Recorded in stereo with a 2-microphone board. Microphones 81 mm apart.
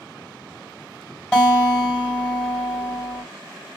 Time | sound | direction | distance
1.3 | a guitar | 10° left (ahead or behind) | 1.4 m